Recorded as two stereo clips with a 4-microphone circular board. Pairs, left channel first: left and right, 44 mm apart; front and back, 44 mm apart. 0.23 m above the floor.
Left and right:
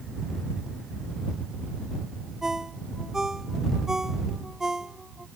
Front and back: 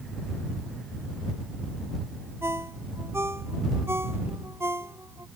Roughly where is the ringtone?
Behind.